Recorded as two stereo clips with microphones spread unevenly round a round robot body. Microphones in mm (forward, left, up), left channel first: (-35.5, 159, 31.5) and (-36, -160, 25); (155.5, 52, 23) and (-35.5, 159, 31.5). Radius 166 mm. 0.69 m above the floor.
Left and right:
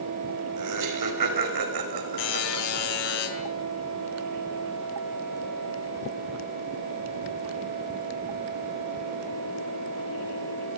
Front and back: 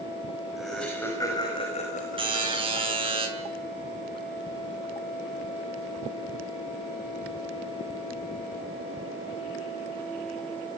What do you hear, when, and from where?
0.6 s laughter: 120° right, 4.5 m; by 3.2 s 70° right, 4 m
2.2 s a buzzer: 85° left, 8 m